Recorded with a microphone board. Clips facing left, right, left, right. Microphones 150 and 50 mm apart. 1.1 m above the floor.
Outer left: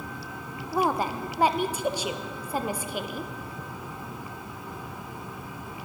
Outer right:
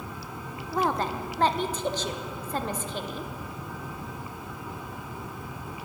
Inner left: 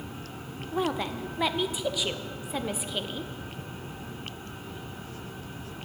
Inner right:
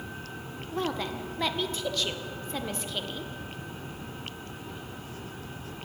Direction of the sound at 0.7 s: 10° left (ahead or behind).